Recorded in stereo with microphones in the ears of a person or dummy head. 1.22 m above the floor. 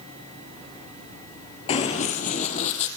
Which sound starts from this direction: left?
Running footsteps, at 1.7 s.